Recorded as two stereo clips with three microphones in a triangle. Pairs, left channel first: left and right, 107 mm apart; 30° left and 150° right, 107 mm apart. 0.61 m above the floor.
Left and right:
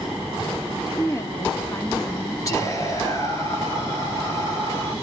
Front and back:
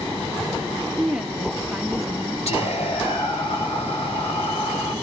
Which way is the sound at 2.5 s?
30° left.